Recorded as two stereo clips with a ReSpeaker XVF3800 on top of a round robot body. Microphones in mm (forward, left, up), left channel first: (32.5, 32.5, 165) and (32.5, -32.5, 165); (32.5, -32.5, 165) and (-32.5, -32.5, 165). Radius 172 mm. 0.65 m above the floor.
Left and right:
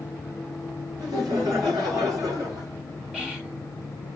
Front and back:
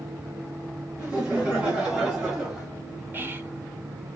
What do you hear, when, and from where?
1.0 s laughter: 105° right, 3.5 m; by 2.7 s 100° right, 2 m
3.1 s whispering: 160° right, 1.3 m